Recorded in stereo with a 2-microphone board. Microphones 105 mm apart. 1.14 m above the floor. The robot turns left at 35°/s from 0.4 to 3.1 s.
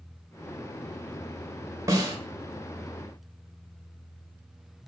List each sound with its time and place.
1.9 s a snare drum: 30° right (ahead or behind), 0.7 m; by 2.1 s 35° right (ahead or behind), 0.7 m